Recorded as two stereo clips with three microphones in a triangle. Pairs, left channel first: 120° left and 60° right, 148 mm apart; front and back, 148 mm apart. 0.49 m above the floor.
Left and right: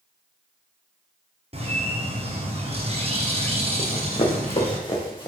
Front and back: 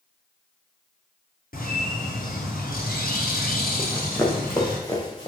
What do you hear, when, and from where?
1.5 s a bird: 10° right, 2.5 m
3.8 s running footsteps: 80° left, 2.5 m; by 5.3 s 60° left, 3 m